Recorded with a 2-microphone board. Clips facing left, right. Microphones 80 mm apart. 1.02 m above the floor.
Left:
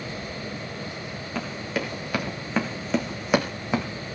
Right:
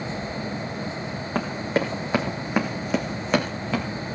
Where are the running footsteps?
40° right (ahead or behind), 3 m; by 3.9 s 20° left (ahead or behind), 3 m.